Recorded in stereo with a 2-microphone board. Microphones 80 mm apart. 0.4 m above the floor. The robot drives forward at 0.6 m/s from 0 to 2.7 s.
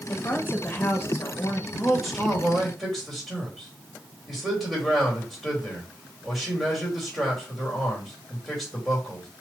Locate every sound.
0.1 s a woman speaking: 20° left (ahead or behind), 1.4 m; by 1.6 s 35° left (ahead or behind), 0.9 m
1.7 s a man speaking: centre (ahead or behind), 1.7 m